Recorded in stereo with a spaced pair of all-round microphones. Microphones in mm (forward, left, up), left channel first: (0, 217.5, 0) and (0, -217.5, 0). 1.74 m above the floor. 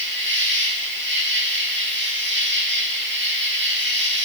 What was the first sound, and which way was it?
An insect, 25° right (ahead or behind).